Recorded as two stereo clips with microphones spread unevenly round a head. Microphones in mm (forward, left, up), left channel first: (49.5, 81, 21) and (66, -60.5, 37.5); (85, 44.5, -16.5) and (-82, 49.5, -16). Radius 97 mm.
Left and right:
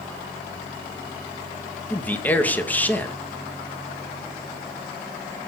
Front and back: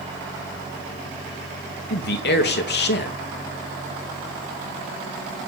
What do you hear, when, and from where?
1.9 s a man speaking: 20° left, 3 m